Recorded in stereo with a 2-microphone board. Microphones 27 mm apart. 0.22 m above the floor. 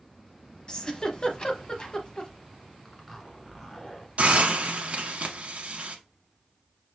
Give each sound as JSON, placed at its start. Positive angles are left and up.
{"t": 0.7, "sound": "a giggle", "side_deg": 30, "distance_m": 0.7}
{"t": 2.9, "sound": "a zipper", "side_deg": 15, "distance_m": 1.1}
{"t": 4.2, "sound": "a hiss", "side_deg": -60, "distance_m": 0.9}